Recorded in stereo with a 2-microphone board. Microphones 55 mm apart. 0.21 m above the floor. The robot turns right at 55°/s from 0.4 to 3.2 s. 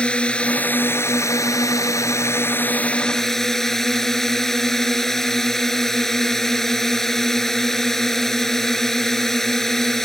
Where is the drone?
20° left; by 10.1 s 175° left.